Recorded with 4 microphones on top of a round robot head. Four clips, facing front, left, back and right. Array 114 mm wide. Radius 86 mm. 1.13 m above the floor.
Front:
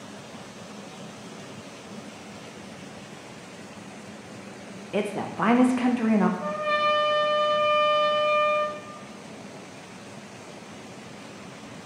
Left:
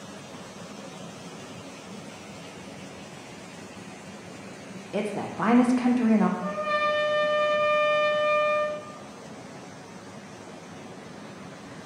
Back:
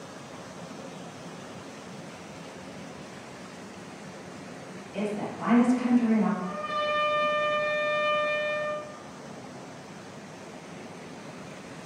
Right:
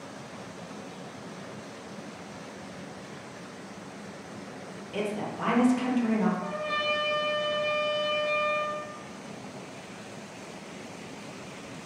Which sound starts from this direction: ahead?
A trumpet, at 6.4 s.